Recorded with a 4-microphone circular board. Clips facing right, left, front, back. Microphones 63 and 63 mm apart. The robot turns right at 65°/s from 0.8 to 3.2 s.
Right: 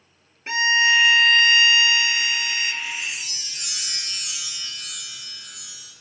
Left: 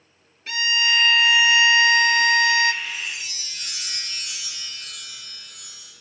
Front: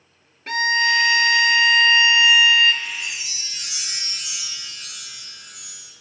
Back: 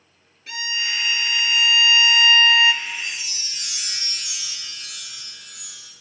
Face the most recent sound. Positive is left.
turn(degrees=-65)